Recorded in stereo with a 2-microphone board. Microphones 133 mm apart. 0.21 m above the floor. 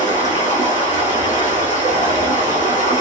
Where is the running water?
75° left (ahead or behind), 1.3 m.